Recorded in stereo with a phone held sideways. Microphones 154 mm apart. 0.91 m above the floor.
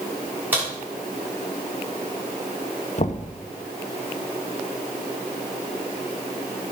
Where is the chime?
I don't hear a chime.